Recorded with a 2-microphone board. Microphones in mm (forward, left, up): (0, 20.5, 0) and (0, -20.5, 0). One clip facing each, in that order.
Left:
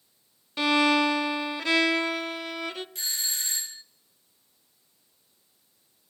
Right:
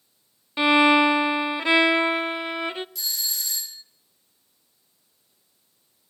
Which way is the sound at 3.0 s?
40° left (ahead or behind).